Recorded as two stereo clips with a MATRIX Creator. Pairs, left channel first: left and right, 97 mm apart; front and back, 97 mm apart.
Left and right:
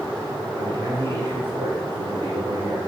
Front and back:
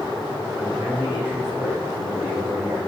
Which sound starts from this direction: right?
A man speaking, at 0.6 s.